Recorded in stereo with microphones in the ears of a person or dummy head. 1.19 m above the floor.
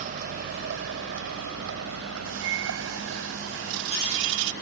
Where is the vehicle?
45° right (ahead or behind); by 4.6 s 60° right (ahead or behind).